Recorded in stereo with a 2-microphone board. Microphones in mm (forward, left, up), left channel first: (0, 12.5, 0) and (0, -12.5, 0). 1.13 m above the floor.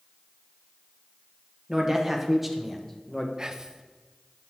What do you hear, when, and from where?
1.7 s a man speaking: 15° right (ahead or behind), 1.2 m; by 3.3 s 20° left (ahead or behind), 0.7 m
3.4 s whispering: 25° right (ahead or behind), 0.6 m